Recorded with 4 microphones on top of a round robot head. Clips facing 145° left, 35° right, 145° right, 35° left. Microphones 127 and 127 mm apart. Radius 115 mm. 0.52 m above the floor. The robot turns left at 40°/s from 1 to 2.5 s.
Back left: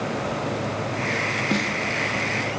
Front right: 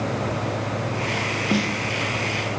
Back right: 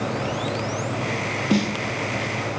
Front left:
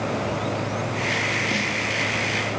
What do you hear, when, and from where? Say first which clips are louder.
1.5 s a snare drum: front right 3 dB, back right 6 dB; 115° right, 2 m; by 1.8 s 125° right, 2 m